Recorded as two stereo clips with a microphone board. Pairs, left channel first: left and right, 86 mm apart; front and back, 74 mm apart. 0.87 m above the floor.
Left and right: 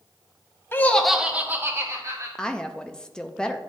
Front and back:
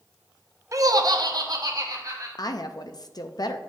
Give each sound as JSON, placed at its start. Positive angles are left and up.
{"t": 0.7, "sound": "laughter", "azimuth_deg": 145, "distance_m": 0.7}
{"t": 2.4, "sound": "a woman speaking", "azimuth_deg": 10, "distance_m": 0.5}